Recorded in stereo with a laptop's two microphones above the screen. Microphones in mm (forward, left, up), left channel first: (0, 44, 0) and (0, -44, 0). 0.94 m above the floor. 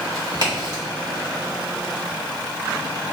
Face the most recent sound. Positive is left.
turn(degrees=-45)  # may be behind; listen again after turning